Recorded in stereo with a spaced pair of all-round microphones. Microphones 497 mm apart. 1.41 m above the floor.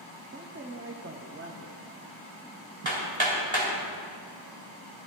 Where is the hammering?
65° right (ahead or behind), 2.5 m.